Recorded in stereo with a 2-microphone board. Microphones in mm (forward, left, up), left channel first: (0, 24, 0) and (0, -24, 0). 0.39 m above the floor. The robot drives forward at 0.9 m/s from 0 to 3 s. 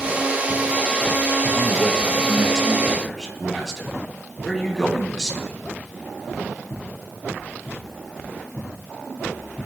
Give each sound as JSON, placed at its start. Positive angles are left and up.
{"t": 1.5, "sound": "a man speaking", "side_deg": -5, "distance_m": 1.5}